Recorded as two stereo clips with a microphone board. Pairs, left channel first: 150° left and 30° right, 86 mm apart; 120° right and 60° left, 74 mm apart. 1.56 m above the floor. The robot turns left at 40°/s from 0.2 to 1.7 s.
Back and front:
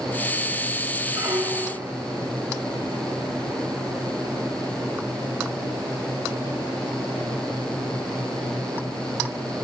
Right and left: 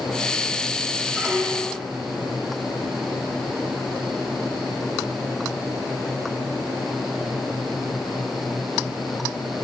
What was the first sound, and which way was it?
A squeak, 25° right.